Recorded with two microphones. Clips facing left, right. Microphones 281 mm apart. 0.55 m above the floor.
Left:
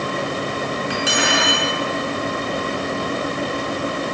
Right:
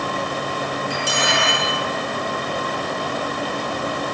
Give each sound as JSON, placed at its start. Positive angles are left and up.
{"t": 0.9, "sound": "cutlery clinking", "side_deg": 80, "distance_m": 3.5}